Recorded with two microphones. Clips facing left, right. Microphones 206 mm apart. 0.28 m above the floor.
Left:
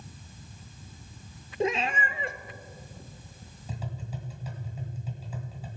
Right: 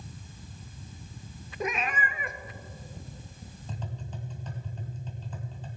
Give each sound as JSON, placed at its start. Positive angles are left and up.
{"t": 1.6, "sound": "a cat meowing", "side_deg": 25, "distance_m": 0.6}
{"t": 3.7, "sound": "tapping", "side_deg": 10, "distance_m": 2.5}